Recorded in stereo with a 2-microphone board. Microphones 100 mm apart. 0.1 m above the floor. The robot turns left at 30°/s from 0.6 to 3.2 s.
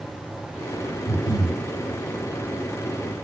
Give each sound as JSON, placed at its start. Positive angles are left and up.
{"t": 1.1, "sound": "breathing", "side_deg": 25, "distance_m": 3.0}